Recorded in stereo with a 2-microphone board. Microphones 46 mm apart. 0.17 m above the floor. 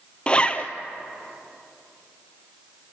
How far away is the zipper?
About 1.2 m.